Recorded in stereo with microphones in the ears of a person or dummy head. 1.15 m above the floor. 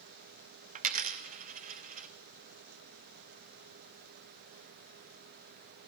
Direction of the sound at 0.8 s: 35° right (ahead or behind).